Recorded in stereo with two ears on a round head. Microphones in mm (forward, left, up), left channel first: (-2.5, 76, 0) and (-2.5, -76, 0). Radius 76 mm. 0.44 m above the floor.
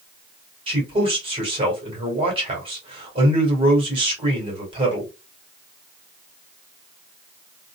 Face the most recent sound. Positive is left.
turn(degrees=-30)  # may be behind; listen again after turning